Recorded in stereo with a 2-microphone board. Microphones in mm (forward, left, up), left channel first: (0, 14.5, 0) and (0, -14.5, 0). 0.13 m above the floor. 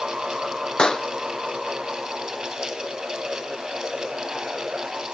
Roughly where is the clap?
Left.